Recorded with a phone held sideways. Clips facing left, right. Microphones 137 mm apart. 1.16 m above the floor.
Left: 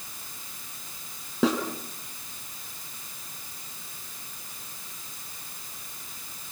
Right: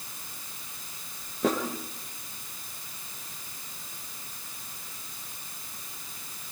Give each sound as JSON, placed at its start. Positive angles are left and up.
{"t": 1.4, "sound": "a snare drum", "side_deg": 80, "distance_m": 4.5}